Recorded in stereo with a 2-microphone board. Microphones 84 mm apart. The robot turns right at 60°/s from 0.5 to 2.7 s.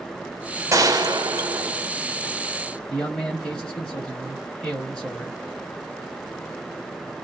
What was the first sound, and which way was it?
A gunshot, 120° right.